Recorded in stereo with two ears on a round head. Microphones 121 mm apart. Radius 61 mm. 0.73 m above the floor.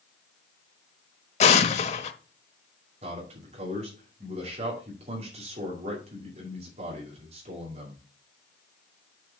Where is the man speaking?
50° right (ahead or behind), 2.5 m.